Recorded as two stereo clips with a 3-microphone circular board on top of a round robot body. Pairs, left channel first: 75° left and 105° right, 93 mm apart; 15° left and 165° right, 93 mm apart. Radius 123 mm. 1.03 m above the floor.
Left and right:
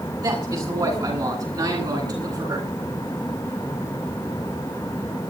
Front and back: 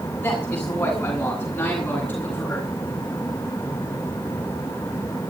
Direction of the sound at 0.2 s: 55° right.